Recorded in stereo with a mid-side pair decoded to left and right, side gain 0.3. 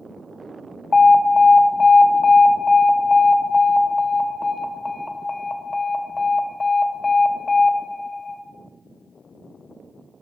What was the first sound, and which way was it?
An alarm, 30° left.